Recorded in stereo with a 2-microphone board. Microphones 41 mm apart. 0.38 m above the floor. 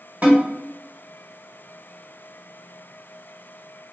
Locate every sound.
0.2 s a snare drum: 30° right (ahead or behind), 1.4 m